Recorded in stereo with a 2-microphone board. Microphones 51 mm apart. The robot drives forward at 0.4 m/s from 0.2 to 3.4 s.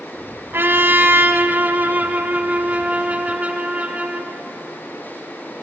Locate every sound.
0.5 s a trumpet: 45° right (ahead or behind), 1.0 m; by 4.3 s 25° right (ahead or behind), 1.6 m